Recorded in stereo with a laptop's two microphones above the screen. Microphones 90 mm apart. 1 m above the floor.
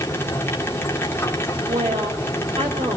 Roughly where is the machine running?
Left.